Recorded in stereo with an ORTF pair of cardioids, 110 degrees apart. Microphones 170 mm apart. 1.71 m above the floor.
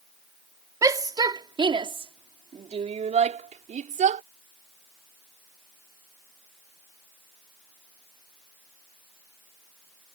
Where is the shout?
20° right; by 4.2 s 50° right.